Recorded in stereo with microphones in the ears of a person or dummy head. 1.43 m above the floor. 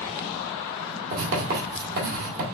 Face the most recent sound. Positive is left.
turn(degrees=-50)  # may be behind; listen again after turning